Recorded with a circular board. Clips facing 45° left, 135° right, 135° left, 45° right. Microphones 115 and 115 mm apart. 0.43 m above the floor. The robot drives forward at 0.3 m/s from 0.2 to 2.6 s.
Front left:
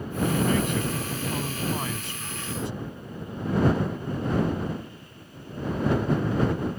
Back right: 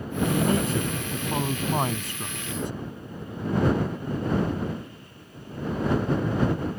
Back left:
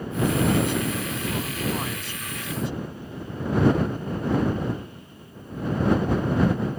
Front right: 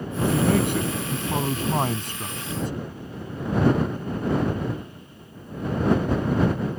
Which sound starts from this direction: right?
A man speaking, at 0.2 s.